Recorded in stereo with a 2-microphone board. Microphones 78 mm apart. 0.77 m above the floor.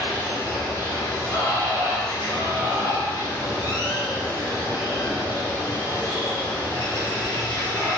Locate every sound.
0.0 s running water: 50° left (ahead or behind), 1.4 m